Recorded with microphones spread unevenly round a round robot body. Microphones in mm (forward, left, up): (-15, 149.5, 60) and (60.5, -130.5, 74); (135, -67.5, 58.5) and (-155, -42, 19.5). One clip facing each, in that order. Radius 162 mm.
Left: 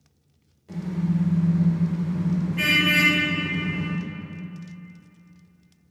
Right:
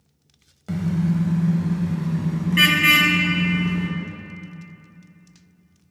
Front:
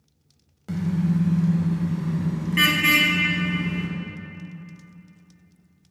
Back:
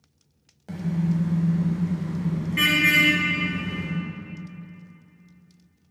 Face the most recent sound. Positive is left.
turn(degrees=-70)